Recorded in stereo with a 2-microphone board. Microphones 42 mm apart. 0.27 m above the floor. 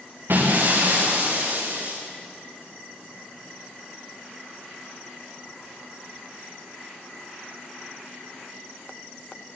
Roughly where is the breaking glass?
Right.